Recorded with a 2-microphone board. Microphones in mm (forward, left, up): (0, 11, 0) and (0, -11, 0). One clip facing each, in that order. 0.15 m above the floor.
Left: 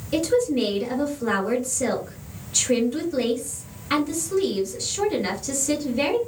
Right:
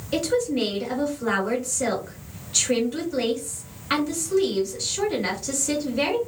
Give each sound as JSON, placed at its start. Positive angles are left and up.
{"t": 0.1, "sound": "a woman speaking", "side_deg": -20, "distance_m": 1.6}